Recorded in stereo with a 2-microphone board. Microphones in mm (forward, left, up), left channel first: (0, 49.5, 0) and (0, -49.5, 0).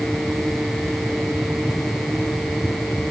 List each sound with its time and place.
Only background noise.